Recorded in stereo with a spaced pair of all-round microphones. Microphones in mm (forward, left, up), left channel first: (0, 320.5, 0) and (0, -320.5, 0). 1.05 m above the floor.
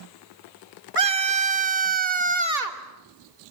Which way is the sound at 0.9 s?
50° right (ahead or behind).